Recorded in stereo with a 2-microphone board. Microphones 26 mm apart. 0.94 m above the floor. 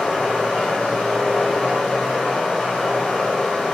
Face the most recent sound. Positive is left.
turn(degrees=60)  # may be behind; listen again after turning